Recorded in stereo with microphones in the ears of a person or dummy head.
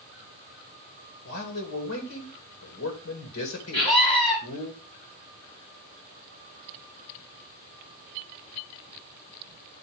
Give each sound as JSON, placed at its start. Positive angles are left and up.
{"t": 1.2, "sound": "a man speaking", "side_deg": 80, "distance_m": 2.5}
{"t": 3.7, "sound": "a scream", "side_deg": 45, "distance_m": 5.0}